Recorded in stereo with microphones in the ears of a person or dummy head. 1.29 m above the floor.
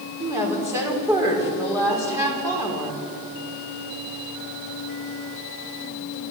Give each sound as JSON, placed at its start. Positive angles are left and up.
{"t": 0.2, "sound": "a woman speaking", "side_deg": -15, "distance_m": 4.5}